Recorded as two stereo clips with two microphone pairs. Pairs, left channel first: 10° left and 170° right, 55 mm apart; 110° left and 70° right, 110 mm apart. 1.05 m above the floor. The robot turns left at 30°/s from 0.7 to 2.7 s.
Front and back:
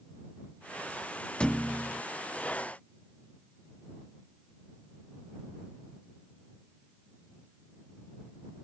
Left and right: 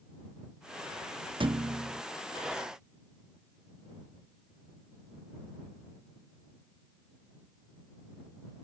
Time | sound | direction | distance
1.4 | a thud | 60° right | ?